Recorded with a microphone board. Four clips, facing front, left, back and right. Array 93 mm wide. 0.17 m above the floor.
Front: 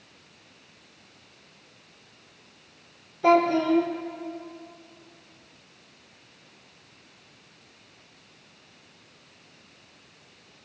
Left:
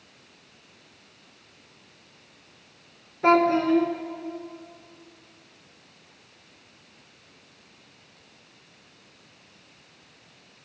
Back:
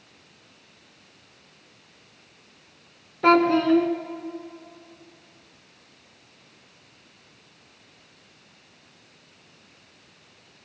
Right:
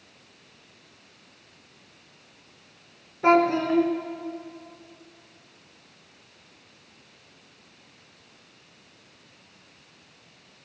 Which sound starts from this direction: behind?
A child speaking, at 3.2 s.